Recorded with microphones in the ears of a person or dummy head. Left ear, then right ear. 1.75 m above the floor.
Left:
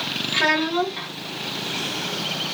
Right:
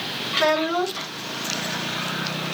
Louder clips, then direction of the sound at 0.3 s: Even; 10° right (ahead or behind).